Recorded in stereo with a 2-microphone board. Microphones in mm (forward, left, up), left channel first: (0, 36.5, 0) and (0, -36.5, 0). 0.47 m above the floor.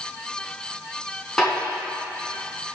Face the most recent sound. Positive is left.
turn(degrees=5)  # may be behind; listen again after turning